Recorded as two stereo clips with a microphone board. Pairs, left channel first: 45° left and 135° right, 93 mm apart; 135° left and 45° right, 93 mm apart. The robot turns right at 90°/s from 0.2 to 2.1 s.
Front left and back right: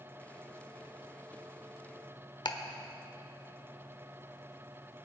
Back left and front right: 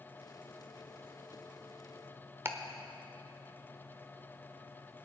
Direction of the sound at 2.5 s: 15° left.